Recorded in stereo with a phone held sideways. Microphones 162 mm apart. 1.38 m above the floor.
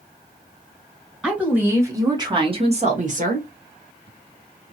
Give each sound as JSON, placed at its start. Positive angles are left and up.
{"t": 1.2, "sound": "a woman speaking", "side_deg": -5, "distance_m": 1.7}